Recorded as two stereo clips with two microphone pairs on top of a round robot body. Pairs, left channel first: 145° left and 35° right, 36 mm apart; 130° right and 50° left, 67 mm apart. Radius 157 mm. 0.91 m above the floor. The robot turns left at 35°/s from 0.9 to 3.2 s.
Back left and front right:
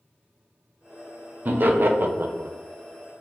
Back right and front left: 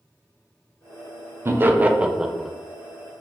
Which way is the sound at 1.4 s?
5° right.